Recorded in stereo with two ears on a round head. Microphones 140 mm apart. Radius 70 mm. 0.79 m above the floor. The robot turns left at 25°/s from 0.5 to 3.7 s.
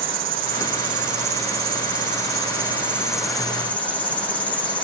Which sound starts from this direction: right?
An insect, at 0.0 s.